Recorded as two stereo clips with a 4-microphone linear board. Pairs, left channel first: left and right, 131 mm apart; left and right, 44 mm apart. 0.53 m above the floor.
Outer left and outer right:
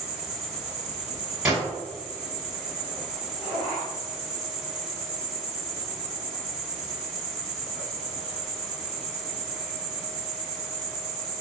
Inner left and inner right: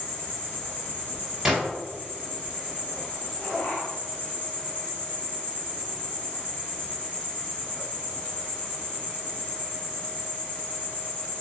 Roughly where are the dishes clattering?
I don't hear dishes clattering.